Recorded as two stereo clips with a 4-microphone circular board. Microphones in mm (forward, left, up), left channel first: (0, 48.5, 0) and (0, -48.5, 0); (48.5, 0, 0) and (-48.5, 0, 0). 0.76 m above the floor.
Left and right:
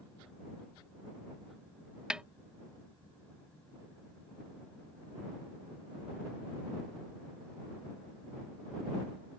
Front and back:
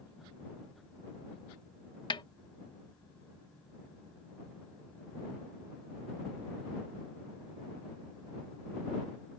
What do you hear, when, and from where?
2.1 s a snare drum: 10° right